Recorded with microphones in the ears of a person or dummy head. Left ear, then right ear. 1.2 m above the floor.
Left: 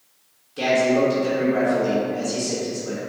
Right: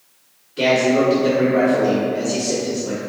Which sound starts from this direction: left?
A man speaking, at 0.6 s.